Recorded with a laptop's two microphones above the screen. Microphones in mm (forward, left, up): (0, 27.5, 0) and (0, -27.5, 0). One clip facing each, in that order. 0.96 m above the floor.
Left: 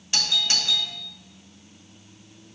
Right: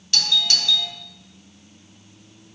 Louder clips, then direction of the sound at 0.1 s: Right 3 dB; 20° left (ahead or behind).